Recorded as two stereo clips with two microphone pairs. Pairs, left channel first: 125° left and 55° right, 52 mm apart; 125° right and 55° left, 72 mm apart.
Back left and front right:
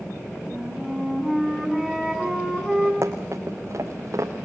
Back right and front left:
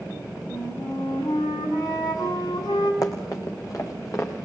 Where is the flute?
150° right, 5.5 m.